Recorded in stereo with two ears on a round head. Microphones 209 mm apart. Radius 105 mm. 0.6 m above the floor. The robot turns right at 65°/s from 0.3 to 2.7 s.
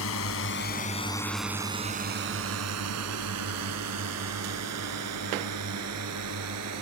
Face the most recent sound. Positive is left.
turn(degrees=-75)  # may be behind; listen again after turning